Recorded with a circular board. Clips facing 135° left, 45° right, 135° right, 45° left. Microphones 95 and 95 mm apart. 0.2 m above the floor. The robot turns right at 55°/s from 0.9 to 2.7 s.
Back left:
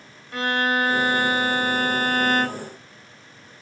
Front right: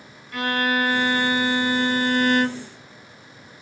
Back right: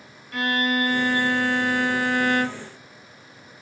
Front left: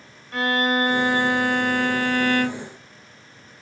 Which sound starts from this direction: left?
A violin, at 0.3 s.